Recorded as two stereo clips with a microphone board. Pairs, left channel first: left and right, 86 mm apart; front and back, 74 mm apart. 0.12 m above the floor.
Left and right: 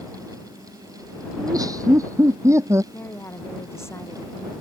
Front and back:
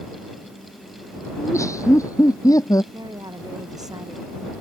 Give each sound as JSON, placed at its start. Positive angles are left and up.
{"t": 1.4, "sound": "laughter", "azimuth_deg": -50}
{"t": 2.9, "sound": "a woman speaking", "azimuth_deg": 150}